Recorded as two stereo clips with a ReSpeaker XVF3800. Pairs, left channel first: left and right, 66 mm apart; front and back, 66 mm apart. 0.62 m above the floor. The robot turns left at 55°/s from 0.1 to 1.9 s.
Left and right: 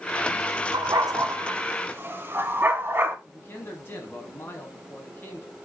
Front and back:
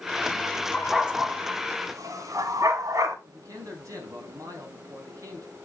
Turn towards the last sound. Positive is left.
turn(degrees=145)